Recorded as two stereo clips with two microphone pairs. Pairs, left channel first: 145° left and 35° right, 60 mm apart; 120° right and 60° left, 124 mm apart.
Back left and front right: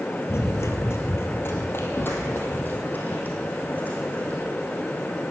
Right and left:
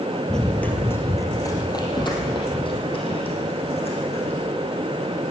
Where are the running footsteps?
150° left, 1.7 m; by 4.4 s 155° right, 4 m.